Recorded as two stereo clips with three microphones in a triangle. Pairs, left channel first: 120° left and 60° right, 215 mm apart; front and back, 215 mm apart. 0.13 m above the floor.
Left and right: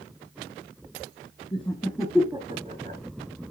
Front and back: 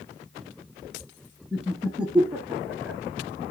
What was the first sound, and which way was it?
Laughter, 95° left.